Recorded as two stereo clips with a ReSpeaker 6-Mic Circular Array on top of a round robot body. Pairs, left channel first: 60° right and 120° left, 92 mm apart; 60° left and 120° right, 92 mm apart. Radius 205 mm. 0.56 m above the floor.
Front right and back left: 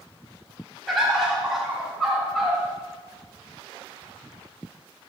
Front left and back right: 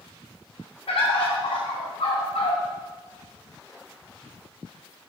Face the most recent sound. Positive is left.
turn(degrees=30)